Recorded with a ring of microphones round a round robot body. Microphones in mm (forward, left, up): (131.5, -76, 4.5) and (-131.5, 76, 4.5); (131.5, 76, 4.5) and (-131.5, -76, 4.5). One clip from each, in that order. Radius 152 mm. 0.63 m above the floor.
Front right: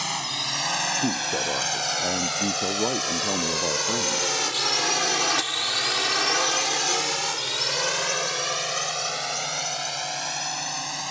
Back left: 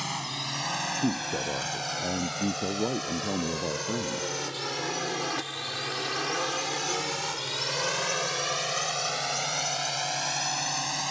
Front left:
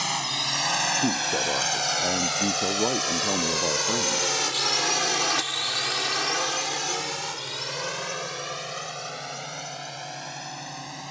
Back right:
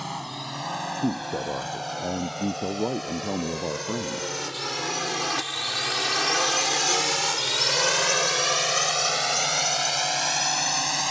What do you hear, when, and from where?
0.0 s a drone: 30° left; by 11.1 s 115° right
1.0 s a man speaking: 10° left